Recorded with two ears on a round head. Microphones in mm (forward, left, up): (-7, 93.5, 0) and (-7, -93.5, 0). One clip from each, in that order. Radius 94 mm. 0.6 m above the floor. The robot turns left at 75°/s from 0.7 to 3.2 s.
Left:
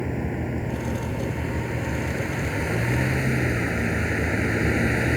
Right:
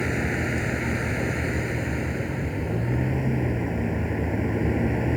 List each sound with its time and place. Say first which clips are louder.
0.0 s a vehicle: right 4 dB; 90° right; by 5.2 s 85° left